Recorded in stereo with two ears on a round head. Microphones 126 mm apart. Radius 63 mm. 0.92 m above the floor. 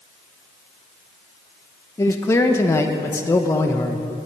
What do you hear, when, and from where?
2.0 s a man speaking: 20° left (ahead or behind), 0.7 m